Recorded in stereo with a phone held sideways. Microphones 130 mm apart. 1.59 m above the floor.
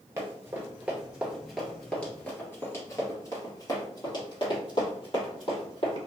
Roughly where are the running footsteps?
Right.